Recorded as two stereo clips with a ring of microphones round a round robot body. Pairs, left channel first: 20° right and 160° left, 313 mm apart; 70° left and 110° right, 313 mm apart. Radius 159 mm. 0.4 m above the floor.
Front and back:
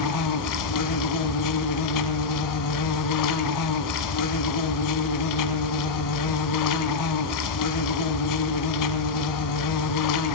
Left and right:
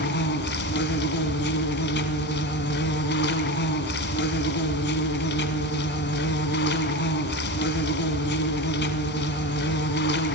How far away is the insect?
About 1.5 m.